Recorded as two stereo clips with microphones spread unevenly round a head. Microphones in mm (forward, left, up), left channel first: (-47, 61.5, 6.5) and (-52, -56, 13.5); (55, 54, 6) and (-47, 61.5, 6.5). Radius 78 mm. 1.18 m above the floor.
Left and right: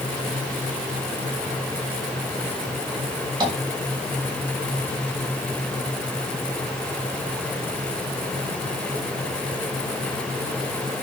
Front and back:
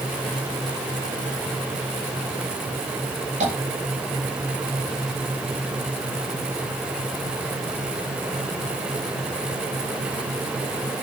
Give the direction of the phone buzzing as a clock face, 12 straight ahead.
I don't hear a phone buzzing.